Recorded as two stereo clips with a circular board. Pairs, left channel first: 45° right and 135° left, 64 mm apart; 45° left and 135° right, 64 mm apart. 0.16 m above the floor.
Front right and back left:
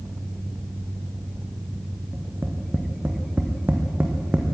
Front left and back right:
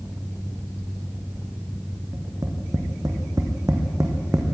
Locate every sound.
2.1 s tapping: 165° right, 3 m